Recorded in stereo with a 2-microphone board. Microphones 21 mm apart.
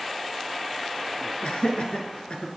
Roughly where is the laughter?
Left.